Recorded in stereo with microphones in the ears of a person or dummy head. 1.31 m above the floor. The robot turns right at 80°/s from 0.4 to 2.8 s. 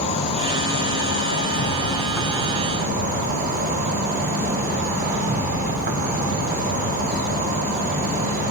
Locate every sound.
0.0 s an insect: 40° left, 1.9 m; by 8.5 s 125° right, 1.9 m